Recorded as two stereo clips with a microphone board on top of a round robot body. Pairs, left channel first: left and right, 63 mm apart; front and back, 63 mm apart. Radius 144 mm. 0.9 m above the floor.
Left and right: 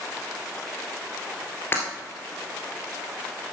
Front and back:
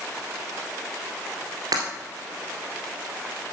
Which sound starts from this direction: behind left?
Breaking glass, at 1.7 s.